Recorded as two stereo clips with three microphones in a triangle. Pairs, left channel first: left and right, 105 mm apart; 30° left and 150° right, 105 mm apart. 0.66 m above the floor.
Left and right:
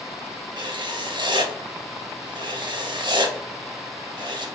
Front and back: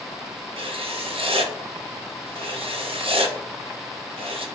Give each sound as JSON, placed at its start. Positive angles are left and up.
{"t": 0.6, "sound": "writing", "azimuth_deg": -130, "distance_m": 0.8}